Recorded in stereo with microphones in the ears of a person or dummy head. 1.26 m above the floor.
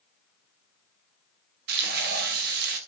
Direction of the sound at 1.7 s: 55° right (ahead or behind).